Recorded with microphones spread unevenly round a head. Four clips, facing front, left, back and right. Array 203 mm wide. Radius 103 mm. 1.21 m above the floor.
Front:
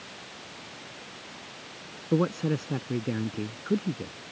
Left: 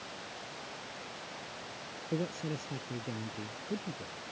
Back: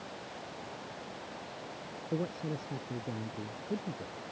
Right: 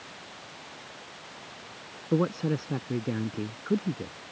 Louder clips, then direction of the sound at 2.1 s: Right 9 dB, front 10 dB; 40° right.